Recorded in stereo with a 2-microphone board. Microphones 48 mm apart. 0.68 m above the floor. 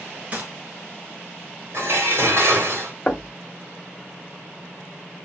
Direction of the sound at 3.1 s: 20° left (ahead or behind).